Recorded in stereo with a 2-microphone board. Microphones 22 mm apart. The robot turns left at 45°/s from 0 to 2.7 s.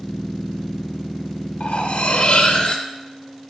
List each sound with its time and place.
1.6 s cutlery clinking: 95° left, 0.9 m; by 2.9 s 45° left, 0.9 m